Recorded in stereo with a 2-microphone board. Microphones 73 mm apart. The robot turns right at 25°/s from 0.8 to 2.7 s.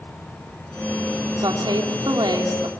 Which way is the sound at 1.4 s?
105° right.